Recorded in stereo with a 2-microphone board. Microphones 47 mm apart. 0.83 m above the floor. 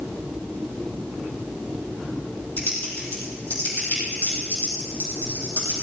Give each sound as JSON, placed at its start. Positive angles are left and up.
{"t": 2.6, "sound": "typing on a keyboard", "side_deg": 40, "distance_m": 7.5}